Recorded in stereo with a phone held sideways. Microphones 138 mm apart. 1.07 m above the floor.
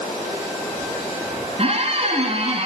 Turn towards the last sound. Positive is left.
turn(degrees=-45)  # may be behind; listen again after turning